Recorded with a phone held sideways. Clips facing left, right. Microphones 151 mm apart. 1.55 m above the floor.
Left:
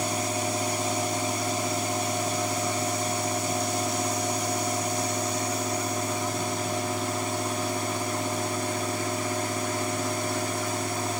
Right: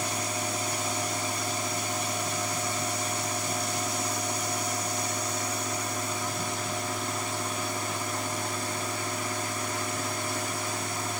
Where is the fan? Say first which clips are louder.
Left 4 dB; 20° left (ahead or behind).